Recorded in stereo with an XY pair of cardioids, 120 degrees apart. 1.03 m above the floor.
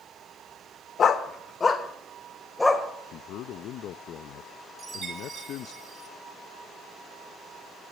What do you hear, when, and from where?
1.0 s a dog barking: 45° left, 1.3 m; by 2.9 s 15° left, 2 m
3.1 s a man speaking: 70° left, 0.6 m
4.8 s a chime: 30° right, 4 m